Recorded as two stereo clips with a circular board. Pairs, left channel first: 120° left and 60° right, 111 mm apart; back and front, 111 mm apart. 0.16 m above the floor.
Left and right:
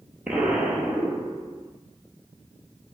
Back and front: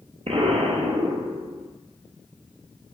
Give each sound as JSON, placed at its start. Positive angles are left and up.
{"t": 0.3, "sound": "an explosion", "azimuth_deg": 25, "distance_m": 0.6}